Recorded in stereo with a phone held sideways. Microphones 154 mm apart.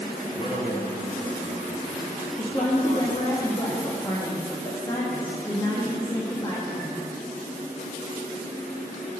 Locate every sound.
0.3 s a man speaking: 40° left (ahead or behind), 2.5 m; by 3.3 s 60° left (ahead or behind), 1.0 m
2.4 s a woman speaking: 25° left (ahead or behind), 1.4 m